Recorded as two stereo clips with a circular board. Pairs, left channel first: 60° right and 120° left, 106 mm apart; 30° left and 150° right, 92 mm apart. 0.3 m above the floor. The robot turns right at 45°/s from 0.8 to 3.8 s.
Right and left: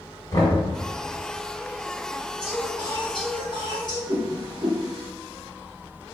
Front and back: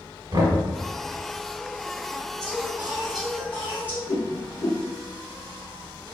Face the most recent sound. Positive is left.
turn(degrees=75)